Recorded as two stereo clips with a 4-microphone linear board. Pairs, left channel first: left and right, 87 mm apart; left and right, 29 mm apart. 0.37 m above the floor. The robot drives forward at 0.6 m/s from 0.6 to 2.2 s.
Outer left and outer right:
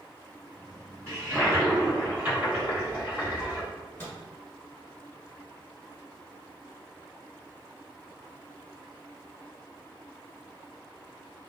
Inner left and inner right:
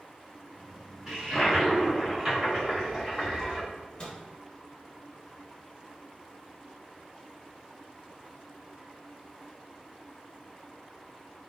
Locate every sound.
1.1 s a toilet flushing: 30° right (ahead or behind), 1.3 m; by 3.6 s 20° right (ahead or behind), 1.7 m
3.7 s a microwave: 25° left (ahead or behind), 0.8 m